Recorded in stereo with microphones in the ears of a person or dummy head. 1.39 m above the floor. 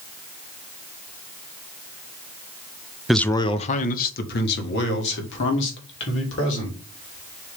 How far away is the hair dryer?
I don't hear a hair dryer.